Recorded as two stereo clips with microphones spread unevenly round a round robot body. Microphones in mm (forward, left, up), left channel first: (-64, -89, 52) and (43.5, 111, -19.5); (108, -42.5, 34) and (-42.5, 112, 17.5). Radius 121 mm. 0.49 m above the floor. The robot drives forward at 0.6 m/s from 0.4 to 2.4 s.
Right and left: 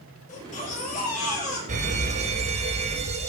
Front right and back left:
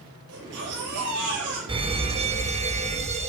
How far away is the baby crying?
About 8 m.